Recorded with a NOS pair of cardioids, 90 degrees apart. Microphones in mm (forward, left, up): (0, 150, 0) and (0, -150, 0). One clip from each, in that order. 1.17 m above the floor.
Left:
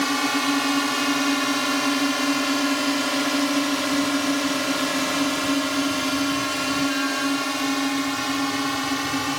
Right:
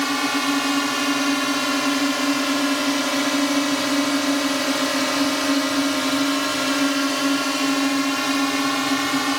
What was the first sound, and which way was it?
A drone, 15° right.